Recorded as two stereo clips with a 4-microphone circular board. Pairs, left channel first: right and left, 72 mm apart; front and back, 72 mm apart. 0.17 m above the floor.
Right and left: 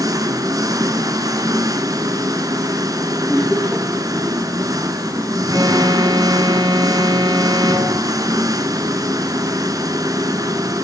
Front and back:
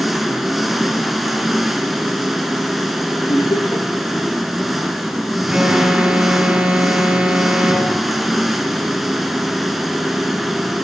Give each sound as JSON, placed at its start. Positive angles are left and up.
{"t": 0.0, "sound": "an engine running", "azimuth_deg": 90, "distance_m": 2.0}
{"t": 3.3, "sound": "laughter", "azimuth_deg": 0, "distance_m": 3.0}
{"t": 5.5, "sound": "an alarm", "azimuth_deg": 105, "distance_m": 4.0}